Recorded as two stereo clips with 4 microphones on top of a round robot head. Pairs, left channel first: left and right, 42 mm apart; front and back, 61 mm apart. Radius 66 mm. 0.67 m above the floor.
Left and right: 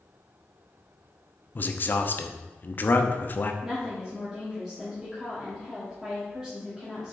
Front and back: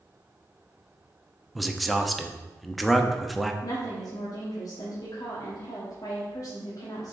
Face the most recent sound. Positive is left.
turn(degrees=-5)